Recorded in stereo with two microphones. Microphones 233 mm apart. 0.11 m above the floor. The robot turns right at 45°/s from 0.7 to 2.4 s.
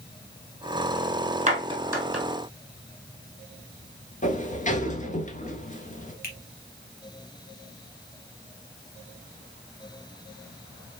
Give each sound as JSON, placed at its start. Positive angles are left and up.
{"t": 1.5, "sound": "a clap", "side_deg": -30, "distance_m": 3.0}
{"t": 4.2, "sound": "a sliding door", "side_deg": 35, "distance_m": 1.0}
{"t": 6.2, "sound": "a finger snap", "side_deg": 40, "distance_m": 1.9}